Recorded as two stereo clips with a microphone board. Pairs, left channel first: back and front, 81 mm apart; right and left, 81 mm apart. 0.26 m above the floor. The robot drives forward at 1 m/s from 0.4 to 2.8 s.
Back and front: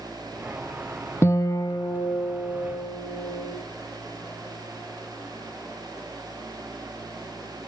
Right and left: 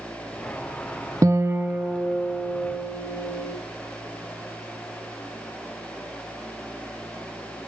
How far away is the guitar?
About 0.5 m.